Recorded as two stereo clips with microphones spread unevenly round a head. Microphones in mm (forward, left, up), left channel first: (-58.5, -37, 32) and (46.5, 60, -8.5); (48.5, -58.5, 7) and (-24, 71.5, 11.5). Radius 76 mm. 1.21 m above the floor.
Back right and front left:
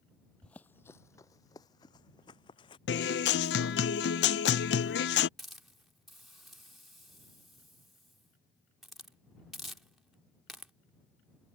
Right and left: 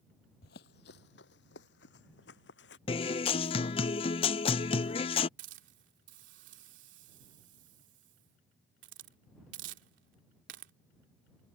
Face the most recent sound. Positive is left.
turn(degrees=130)